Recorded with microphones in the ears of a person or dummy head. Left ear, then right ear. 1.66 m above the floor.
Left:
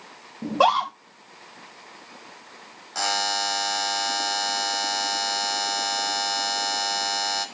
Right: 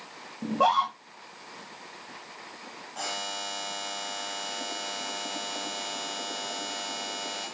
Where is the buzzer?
65° left (ahead or behind), 1.2 m.